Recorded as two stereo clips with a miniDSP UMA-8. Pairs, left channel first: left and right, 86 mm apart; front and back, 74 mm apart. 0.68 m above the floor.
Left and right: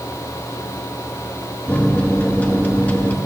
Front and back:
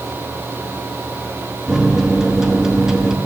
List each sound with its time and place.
1.7 s a microwave: 115° left, 0.7 m